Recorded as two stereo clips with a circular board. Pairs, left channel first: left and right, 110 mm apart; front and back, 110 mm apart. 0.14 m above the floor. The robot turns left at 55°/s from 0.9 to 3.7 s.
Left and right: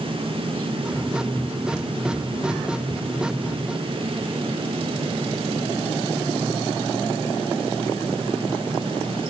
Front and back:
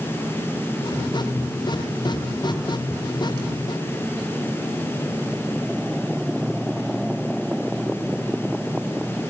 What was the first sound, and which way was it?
Only background noise.